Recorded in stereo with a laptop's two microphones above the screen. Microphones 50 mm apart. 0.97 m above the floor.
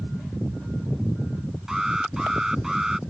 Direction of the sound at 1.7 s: 10° right (ahead or behind).